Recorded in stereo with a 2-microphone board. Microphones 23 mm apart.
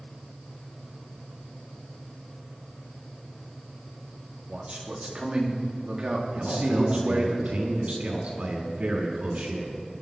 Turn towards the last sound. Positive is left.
turn(degrees=-85)